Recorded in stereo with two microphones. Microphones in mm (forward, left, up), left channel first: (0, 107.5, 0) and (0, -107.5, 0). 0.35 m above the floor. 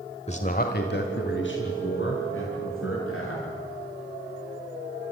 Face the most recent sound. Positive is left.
turn(degrees=75)  # may be behind; listen again after turning